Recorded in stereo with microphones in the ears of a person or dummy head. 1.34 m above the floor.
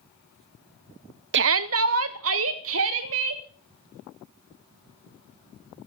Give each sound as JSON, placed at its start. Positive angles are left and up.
{"t": 1.3, "sound": "a shout", "side_deg": -55, "distance_m": 0.7}